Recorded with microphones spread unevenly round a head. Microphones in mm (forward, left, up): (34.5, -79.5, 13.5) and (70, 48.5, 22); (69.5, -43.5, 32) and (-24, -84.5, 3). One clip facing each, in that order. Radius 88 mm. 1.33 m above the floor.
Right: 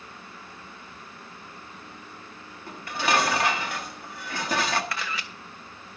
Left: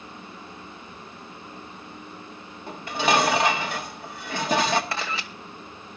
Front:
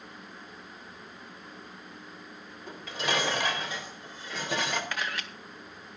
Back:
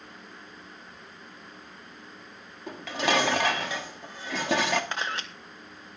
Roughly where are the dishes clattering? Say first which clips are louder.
Left 3 dB, back 5 dB; behind left.